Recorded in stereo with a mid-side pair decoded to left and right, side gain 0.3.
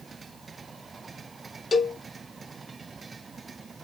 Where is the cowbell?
40° left, 0.7 m.